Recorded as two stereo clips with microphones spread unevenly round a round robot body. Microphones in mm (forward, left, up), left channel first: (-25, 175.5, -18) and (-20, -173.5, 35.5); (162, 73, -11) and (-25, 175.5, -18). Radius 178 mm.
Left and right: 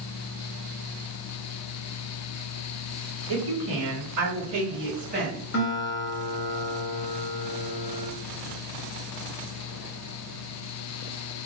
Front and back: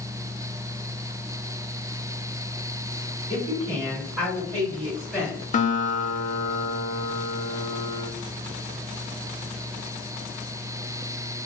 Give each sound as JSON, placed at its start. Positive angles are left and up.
{"t": 3.3, "sound": "a woman speaking", "azimuth_deg": -95, "distance_m": 1.4}
{"t": 5.5, "sound": "a guitar", "azimuth_deg": 25, "distance_m": 0.6}